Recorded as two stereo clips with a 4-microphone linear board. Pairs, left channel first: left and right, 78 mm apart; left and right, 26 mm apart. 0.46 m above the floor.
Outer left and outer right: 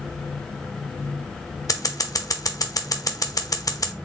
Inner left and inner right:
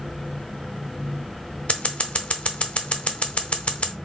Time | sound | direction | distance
1.7 | scissors | 50° left (ahead or behind) | 0.6 m